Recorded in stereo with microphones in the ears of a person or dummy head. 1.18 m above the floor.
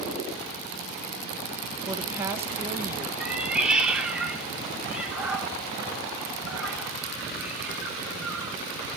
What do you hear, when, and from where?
1.9 s a woman speaking: 10° right (ahead or behind), 1.0 m
3.2 s a cat meowing: 5° right (ahead or behind), 1.3 m